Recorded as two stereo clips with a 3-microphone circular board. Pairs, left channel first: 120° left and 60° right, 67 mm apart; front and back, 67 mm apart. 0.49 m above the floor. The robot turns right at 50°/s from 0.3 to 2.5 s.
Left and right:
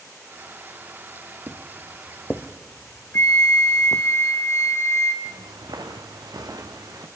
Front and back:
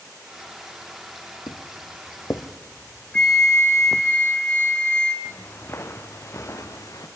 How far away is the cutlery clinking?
I don't hear cutlery clinking.